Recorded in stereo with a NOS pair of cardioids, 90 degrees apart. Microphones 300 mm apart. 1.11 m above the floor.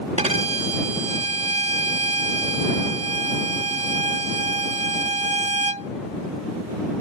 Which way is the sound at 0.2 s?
20° right.